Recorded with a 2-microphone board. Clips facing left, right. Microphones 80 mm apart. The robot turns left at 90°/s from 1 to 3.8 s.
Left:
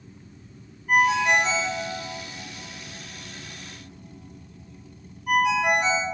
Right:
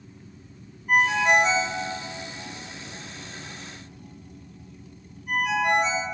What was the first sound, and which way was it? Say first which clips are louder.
A ringtone: even; 10° right (ahead or behind).